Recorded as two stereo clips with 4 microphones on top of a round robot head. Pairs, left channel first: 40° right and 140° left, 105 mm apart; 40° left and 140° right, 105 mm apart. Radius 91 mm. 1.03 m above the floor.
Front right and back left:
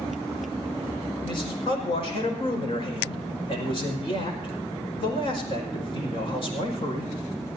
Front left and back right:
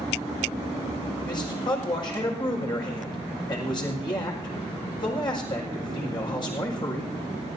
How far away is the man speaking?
About 6 m.